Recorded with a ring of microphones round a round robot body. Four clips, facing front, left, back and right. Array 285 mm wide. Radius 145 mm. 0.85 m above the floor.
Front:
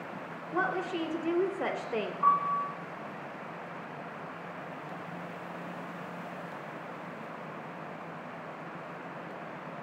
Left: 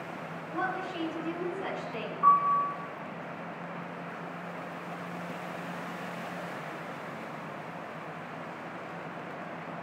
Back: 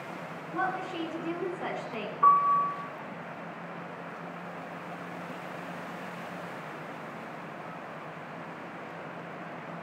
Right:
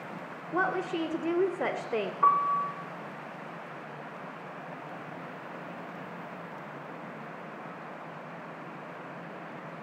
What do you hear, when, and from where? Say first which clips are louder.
0.5 s a woman speaking: right 4 dB, front 1 dB; 65° right, 3 m
2.2 s a piano: left 2 dB, back 6 dB; 120° right, 4 m